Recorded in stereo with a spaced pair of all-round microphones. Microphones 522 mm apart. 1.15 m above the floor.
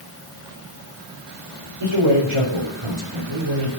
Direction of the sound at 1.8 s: 65° right (ahead or behind).